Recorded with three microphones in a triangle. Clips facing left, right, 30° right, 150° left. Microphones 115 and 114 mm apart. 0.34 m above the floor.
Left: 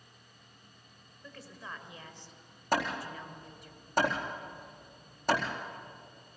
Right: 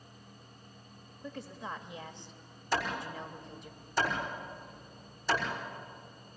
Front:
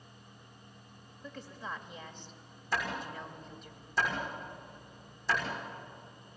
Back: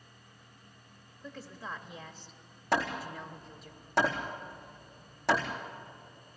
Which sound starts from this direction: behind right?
A woman speaking, at 1.2 s.